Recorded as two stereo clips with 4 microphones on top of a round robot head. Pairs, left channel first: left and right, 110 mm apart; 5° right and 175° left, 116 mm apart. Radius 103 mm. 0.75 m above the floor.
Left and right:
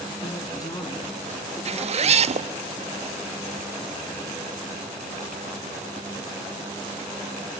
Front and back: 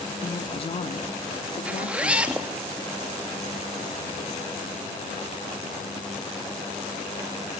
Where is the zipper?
105° right, 0.8 m.